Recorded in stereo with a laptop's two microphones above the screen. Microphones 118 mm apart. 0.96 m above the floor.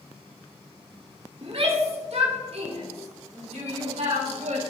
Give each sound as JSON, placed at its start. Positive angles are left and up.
{"t": 1.4, "sound": "a shout", "side_deg": -55, "distance_m": 2.5}